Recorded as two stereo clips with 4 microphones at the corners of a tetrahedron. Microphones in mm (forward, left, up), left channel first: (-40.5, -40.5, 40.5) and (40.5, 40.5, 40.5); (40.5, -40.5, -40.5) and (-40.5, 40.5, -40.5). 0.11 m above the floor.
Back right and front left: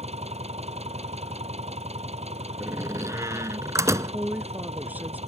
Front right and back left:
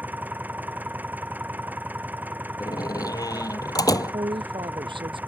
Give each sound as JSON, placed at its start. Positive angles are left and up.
{"t": 0.0, "sound": "an engine running", "azimuth_deg": 60}
{"t": 2.6, "sound": "a door slam", "azimuth_deg": -5}
{"t": 4.1, "sound": "a woman speaking", "azimuth_deg": 115}